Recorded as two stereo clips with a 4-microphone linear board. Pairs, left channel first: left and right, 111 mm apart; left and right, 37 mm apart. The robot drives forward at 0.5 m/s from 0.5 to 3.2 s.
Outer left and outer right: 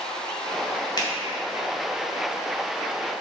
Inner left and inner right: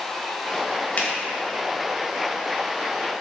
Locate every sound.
1.0 s a finger snap: 40° left (ahead or behind), 2.0 m